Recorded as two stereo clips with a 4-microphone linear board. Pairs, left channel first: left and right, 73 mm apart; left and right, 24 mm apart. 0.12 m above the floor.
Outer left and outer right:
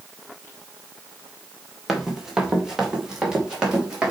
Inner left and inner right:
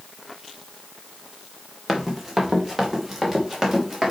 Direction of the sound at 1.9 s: 5° right (ahead or behind).